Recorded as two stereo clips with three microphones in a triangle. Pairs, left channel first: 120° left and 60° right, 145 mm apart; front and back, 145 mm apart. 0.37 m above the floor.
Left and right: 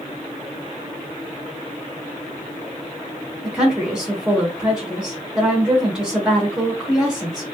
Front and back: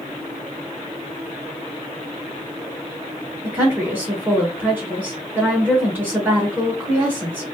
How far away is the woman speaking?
About 0.9 m.